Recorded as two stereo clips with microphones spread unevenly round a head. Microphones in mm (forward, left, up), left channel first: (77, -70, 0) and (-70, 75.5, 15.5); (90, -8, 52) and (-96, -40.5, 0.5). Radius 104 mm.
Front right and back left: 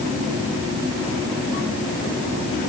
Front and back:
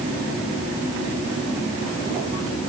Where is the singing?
No singing in this recording.